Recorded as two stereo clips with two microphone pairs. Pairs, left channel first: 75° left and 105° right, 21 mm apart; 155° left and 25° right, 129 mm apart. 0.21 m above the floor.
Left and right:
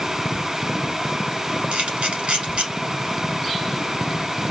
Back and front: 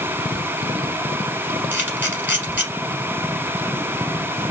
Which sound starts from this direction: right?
A camera shutter, at 1.7 s.